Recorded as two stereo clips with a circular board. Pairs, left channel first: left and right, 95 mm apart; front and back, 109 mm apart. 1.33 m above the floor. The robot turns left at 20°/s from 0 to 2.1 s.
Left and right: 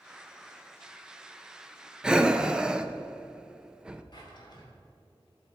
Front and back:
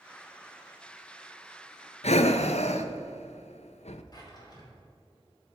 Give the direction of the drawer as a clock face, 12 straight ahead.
10 o'clock.